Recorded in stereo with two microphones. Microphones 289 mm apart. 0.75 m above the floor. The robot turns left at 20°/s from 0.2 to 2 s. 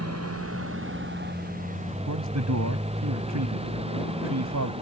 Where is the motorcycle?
60° right (ahead or behind); by 4.8 s 20° right (ahead or behind).